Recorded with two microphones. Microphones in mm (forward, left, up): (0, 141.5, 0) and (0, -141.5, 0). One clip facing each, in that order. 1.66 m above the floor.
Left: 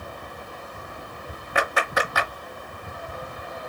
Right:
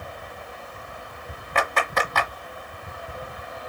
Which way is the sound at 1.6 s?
10° left (ahead or behind).